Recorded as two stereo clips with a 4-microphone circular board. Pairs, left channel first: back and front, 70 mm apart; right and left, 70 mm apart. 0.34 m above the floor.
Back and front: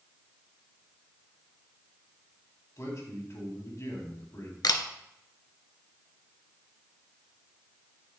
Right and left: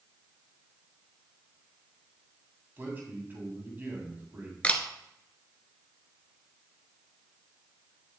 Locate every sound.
2.8 s a man speaking: 145° left, 2.5 m
4.6 s a camera shutter: 160° right, 0.7 m